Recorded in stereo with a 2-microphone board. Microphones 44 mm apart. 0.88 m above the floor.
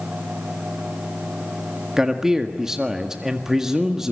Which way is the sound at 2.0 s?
15° right (ahead or behind).